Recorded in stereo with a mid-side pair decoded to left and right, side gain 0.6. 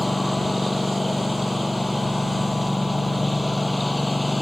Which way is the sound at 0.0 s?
10° left.